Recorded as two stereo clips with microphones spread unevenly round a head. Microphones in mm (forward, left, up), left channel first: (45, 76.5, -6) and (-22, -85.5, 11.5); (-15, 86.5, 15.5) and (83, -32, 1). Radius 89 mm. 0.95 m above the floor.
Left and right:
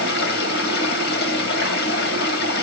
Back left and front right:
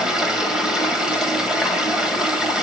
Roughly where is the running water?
Ahead left.